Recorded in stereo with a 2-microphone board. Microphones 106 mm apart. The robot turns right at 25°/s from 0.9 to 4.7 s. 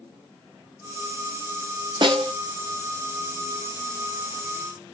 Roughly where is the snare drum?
Right.